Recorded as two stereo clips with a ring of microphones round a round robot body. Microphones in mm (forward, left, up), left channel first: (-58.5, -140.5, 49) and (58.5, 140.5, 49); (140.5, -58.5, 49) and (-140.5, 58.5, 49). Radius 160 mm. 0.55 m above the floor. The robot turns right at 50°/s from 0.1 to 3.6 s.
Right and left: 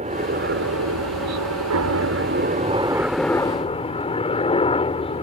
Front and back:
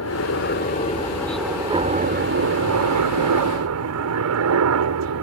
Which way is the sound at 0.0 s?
5° left.